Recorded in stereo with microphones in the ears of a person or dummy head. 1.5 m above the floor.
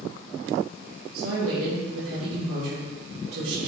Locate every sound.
1.1 s a woman speaking: 85° right, 3.5 m